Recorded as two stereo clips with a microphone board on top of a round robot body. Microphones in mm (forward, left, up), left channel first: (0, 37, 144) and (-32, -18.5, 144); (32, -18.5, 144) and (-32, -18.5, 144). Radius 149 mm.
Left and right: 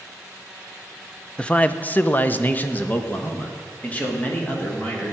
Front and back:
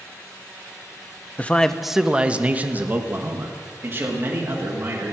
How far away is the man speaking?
About 0.8 m.